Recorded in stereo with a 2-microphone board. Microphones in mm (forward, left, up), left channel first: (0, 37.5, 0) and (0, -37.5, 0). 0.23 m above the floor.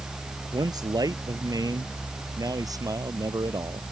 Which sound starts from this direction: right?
A man speaking, at 0.5 s.